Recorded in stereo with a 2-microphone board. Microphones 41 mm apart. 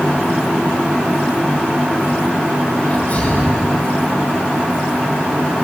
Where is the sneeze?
35° left (ahead or behind), 4.5 m.